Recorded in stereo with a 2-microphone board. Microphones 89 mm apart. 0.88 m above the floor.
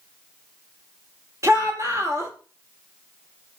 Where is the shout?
35° right (ahead or behind), 1.1 m.